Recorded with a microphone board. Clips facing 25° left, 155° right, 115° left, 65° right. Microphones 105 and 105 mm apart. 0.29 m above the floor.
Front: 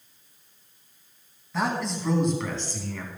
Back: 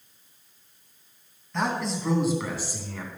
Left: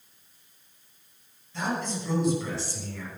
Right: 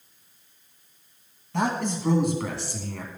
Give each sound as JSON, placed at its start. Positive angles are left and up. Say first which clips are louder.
{"t": 1.5, "sound": "a man speaking", "louder": "even, right 4 dB", "azimuth_deg": -60, "distance_m": 3.0}